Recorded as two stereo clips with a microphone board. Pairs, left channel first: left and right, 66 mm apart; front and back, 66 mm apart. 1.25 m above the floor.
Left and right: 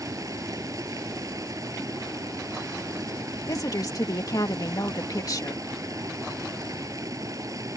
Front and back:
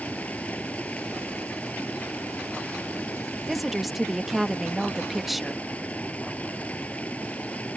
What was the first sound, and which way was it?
Running water, 65° right.